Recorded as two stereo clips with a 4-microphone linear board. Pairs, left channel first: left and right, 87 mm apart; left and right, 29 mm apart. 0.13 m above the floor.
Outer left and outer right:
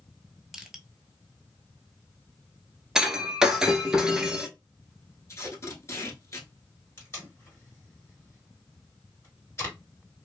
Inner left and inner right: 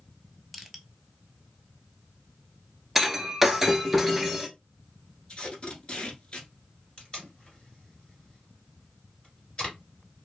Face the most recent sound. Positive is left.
turn(degrees=30)  # may be behind; listen again after turning